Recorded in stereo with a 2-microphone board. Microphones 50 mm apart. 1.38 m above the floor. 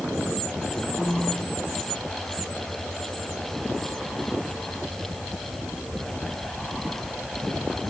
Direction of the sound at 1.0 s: 15° right (ahead or behind).